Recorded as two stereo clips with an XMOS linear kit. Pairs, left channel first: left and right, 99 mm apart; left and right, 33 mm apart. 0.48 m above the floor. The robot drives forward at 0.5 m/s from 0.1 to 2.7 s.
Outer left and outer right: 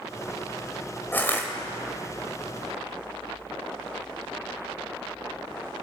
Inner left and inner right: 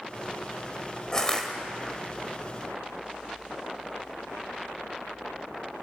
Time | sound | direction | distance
1.1 | crushing | 20° left (ahead or behind) | 2.5 m